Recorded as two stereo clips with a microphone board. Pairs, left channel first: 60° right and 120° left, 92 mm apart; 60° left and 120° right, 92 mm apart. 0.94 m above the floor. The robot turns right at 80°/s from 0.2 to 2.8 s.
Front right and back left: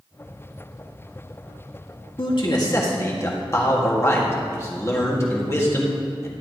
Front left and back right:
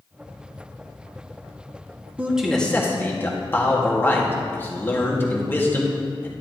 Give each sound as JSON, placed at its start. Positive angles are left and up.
{"t": 2.2, "sound": "a man speaking", "azimuth_deg": -55, "distance_m": 1.9}